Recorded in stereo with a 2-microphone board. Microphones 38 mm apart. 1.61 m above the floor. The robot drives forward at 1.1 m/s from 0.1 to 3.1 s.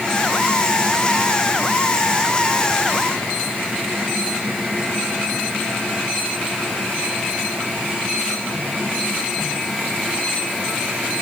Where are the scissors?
No scissors in this recording.